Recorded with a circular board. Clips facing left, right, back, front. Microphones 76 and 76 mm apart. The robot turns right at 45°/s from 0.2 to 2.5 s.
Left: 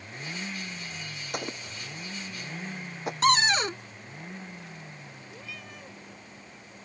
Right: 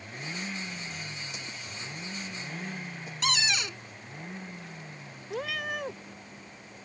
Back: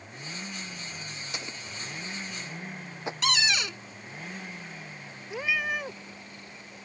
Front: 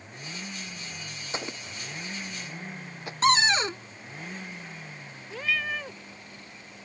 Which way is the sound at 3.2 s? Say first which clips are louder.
Left 8 dB, front 7 dB; 50° left.